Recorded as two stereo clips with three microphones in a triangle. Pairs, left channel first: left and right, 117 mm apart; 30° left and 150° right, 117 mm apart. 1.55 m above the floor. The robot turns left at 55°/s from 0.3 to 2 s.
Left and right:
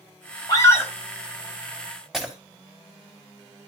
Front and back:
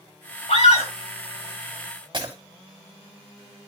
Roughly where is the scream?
Ahead left.